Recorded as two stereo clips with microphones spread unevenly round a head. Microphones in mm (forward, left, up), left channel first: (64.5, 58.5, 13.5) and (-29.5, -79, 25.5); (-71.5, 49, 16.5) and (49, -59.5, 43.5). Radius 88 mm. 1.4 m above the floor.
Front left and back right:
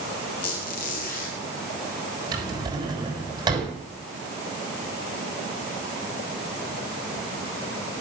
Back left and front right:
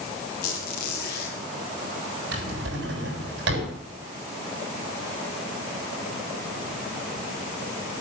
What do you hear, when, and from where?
0.4 s a squeak: 100° left, 4.5 m
2.3 s a drawer: 60° right, 6.5 m